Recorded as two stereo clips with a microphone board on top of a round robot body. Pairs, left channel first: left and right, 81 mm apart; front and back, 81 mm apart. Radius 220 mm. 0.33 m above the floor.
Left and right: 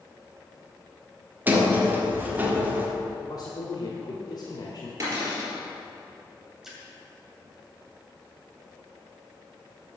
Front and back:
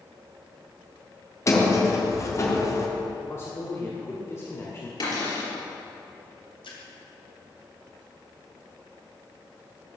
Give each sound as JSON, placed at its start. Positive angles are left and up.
{"t": 1.5, "sound": "a sliding door", "azimuth_deg": -35, "distance_m": 2.0}
{"t": 3.3, "sound": "a man speaking", "azimuth_deg": 55, "distance_m": 1.9}
{"t": 5.0, "sound": "a cupboard door", "azimuth_deg": -35, "distance_m": 4.0}
{"t": 6.6, "sound": "a splash", "azimuth_deg": -5, "distance_m": 2.5}